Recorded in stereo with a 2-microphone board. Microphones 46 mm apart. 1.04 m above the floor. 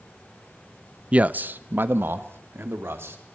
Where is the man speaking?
25° right (ahead or behind), 0.6 m; by 3.2 s 65° right (ahead or behind), 2.5 m.